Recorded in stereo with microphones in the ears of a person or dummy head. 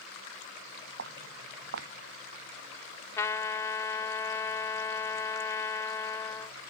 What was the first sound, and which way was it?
Footsteps, 65° right (ahead or behind).